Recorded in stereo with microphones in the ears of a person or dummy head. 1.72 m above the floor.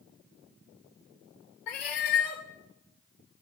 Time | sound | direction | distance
1.7 | a cat meowing | 45° left (ahead or behind) | 1.3 m